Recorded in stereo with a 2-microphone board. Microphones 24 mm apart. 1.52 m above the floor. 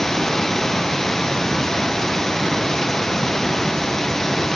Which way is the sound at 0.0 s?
15° left (ahead or behind).